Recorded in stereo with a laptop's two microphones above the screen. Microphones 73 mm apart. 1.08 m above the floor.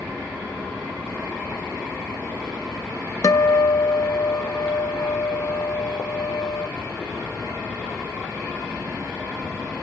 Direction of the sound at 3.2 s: 50° left (ahead or behind).